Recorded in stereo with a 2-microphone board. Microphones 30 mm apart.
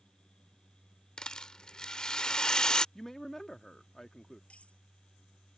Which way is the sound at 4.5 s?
45° left (ahead or behind).